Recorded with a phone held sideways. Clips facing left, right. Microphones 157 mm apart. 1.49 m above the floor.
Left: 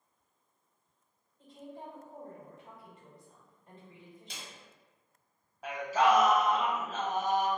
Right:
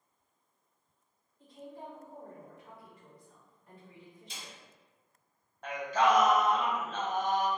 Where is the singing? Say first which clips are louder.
Left 1 dB; 5° left (ahead or behind), 0.7 m.